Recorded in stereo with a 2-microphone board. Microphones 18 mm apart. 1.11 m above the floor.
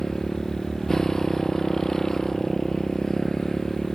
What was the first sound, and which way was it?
A motorcycle, 35° left (ahead or behind).